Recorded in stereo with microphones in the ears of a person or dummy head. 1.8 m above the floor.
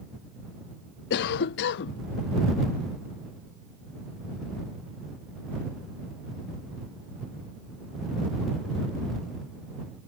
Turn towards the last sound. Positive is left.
turn(degrees=60)  # may be behind; listen again after turning